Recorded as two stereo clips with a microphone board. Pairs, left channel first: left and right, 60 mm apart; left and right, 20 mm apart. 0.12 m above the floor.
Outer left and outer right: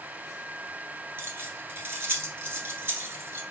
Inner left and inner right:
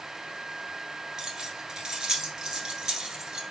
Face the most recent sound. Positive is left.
turn(degrees=-40)  # may be behind; listen again after turning